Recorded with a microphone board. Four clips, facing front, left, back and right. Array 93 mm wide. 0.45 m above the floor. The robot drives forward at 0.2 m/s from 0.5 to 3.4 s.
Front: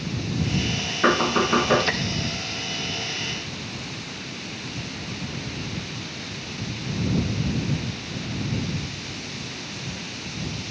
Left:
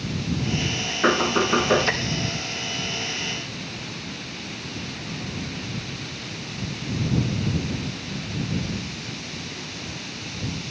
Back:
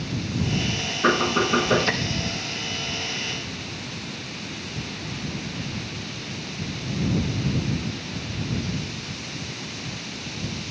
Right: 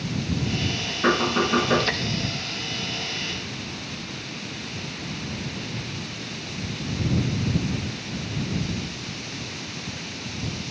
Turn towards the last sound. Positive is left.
turn(degrees=60)